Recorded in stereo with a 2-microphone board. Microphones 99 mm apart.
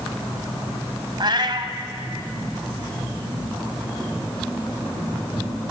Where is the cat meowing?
50° right (ahead or behind), 1.2 m.